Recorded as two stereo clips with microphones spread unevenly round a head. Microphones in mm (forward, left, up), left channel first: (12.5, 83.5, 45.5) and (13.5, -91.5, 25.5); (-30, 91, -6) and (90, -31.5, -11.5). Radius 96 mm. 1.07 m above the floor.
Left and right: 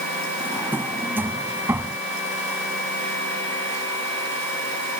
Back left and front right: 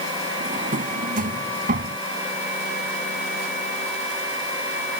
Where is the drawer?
10° right.